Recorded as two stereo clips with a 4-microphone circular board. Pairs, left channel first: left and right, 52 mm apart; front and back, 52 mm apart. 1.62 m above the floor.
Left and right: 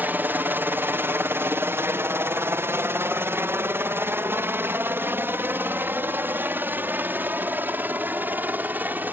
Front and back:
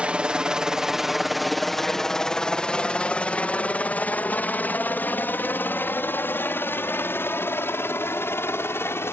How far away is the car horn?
No car horn in this recording.